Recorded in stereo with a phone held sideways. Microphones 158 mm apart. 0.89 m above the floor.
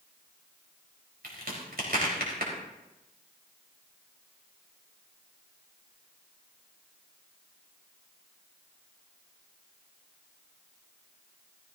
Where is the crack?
75° right (ahead or behind), 3.5 m.